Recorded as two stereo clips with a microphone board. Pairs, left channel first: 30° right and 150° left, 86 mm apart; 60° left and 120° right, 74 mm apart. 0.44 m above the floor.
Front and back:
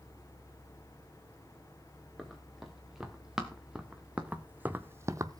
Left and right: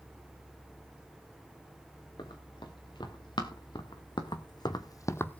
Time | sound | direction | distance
2.2 | running footsteps | 60° left | 3.5 m